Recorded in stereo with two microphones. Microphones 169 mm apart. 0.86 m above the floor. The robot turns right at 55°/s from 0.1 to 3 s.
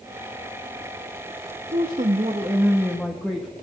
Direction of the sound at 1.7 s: 70° right.